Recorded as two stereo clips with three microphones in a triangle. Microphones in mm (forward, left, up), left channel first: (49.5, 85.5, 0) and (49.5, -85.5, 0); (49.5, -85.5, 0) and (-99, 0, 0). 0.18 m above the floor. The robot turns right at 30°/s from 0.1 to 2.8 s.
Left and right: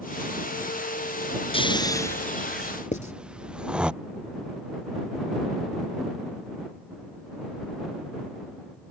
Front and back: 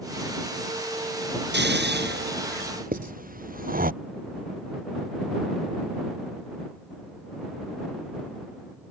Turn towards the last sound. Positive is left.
turn(degrees=125)